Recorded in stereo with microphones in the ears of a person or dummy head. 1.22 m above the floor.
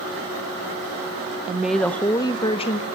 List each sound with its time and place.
1.5 s a woman speaking: 5° right (ahead or behind), 1.2 m; by 2.9 s 40° left (ahead or behind), 1.5 m